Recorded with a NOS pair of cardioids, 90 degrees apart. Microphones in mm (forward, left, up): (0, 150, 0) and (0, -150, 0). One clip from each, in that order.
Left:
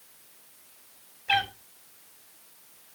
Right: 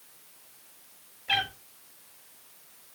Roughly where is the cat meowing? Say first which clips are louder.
Left 2 dB; ahead.